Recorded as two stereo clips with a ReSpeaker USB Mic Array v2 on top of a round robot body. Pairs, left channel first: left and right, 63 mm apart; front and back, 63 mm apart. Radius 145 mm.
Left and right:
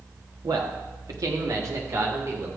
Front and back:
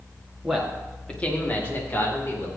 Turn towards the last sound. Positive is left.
turn(degrees=-45)